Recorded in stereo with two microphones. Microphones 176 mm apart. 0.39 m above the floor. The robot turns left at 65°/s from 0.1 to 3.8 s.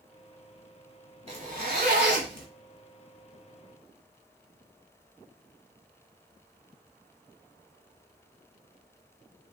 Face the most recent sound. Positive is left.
turn(degrees=160)